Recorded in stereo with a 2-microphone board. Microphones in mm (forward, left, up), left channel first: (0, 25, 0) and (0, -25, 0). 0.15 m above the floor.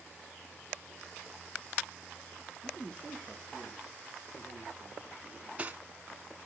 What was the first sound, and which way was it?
A man speaking, 15° left (ahead or behind).